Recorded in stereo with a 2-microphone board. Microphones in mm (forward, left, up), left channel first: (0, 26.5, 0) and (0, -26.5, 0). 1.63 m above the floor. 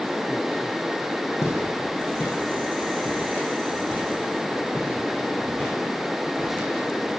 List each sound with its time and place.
1.4 s footsteps: 50° left (ahead or behind), 5 m; by 7.1 s 20° left (ahead or behind), 7.5 m